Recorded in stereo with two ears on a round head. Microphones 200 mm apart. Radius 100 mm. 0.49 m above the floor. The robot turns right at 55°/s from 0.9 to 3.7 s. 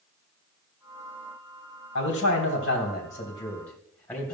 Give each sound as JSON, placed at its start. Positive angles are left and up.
{"t": 1.9, "sound": "a man speaking", "azimuth_deg": 80, "distance_m": 3.0}